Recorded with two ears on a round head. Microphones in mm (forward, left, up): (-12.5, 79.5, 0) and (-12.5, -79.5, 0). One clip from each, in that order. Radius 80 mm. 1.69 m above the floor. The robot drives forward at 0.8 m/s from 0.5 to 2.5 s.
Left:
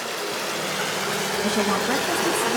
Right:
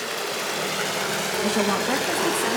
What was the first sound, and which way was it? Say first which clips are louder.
Running water: even; 10° right (ahead or behind).